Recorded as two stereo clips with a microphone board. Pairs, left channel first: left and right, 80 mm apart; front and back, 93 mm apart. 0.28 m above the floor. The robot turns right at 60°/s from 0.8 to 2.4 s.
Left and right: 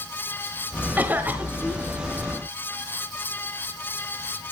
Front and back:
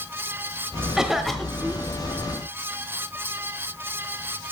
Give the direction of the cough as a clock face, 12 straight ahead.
4 o'clock.